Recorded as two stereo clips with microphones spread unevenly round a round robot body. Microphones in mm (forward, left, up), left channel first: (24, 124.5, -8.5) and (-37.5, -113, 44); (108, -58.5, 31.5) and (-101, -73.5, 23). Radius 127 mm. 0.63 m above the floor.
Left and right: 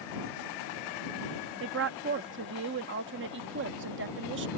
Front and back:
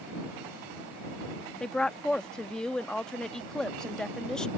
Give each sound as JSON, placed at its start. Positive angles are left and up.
{"t": 1.6, "sound": "a woman speaking", "azimuth_deg": -85}